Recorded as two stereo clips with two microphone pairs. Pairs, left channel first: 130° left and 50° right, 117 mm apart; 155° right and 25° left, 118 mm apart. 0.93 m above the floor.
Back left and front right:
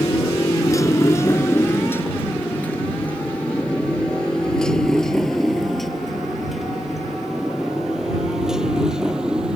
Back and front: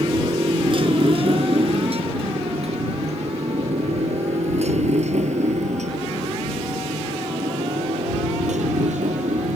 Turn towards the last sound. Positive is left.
turn(degrees=35)